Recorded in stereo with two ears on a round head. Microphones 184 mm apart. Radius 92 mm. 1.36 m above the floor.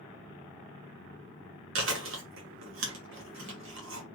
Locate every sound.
1.8 s chewing: 70° right (ahead or behind), 1.6 m